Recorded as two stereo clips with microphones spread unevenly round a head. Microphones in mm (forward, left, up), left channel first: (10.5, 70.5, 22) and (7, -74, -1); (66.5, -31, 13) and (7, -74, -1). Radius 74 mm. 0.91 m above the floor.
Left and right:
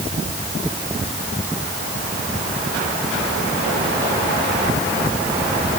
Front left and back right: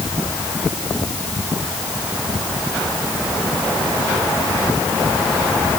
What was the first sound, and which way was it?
Only background noise.